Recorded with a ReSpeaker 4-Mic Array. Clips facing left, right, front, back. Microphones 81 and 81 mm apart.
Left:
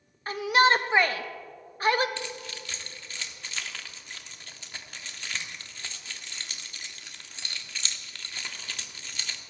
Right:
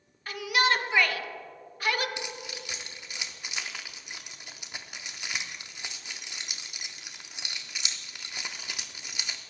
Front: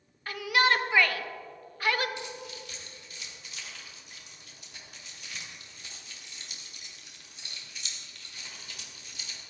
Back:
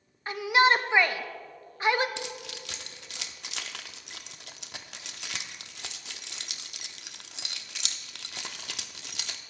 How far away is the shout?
About 0.8 m.